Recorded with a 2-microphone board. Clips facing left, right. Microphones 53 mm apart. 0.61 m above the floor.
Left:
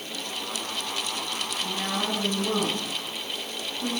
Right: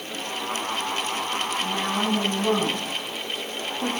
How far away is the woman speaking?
About 4.5 m.